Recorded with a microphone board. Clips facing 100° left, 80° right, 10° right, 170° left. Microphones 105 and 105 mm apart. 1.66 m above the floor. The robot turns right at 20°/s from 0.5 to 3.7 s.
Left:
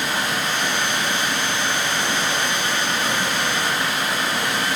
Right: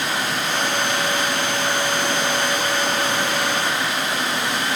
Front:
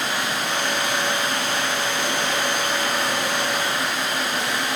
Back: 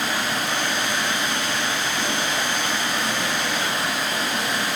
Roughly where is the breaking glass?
No breaking glass in this recording.